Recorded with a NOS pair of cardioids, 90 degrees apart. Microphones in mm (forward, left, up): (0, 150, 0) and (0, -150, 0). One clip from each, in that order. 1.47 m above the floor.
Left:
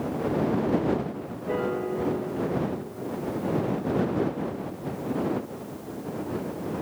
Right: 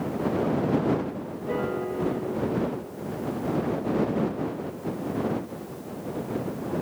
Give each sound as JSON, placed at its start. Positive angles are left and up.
{"t": 1.5, "sound": "a piano", "azimuth_deg": 5}